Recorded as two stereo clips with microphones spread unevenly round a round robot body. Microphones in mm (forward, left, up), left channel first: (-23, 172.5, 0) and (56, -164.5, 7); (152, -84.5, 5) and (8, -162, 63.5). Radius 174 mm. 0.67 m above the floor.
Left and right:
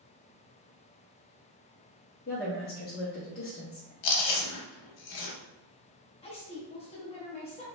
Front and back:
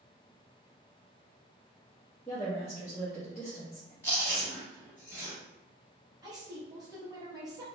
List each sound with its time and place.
2.3 s a woman speaking: 60° left, 0.7 m
4.0 s chewing: 125° left, 0.7 m
6.2 s a woman speaking: 120° left, 0.7 m